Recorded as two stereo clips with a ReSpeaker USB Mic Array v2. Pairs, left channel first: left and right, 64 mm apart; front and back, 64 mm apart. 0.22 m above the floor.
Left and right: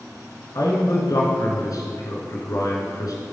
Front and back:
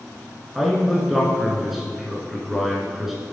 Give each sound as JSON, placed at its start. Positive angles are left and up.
{"t": 0.6, "sound": "a man speaking", "azimuth_deg": 95, "distance_m": 3.0}